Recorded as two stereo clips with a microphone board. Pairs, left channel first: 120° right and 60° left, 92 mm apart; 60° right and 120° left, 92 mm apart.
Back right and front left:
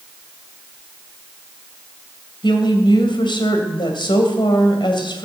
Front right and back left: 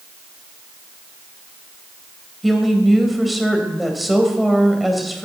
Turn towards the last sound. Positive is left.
turn(degrees=-150)